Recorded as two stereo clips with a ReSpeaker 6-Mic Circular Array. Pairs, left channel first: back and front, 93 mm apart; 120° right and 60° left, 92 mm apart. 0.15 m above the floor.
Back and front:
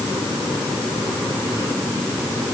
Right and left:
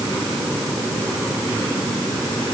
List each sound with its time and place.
Only background noise.